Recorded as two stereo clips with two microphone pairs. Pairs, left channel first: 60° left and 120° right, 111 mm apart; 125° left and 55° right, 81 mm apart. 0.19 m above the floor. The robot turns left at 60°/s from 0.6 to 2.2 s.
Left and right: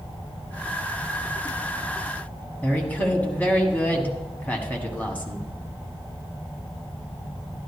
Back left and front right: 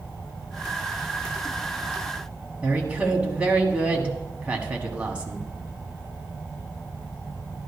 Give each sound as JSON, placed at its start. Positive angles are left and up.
{"t": 2.6, "sound": "a woman speaking", "azimuth_deg": 5, "distance_m": 1.4}